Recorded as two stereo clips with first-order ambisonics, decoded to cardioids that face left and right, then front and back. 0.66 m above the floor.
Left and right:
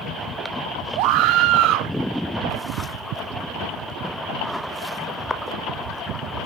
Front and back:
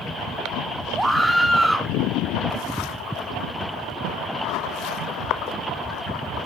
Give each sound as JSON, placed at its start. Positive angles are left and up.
{"t": 1.0, "sound": "a scream", "azimuth_deg": -95, "distance_m": 1.1}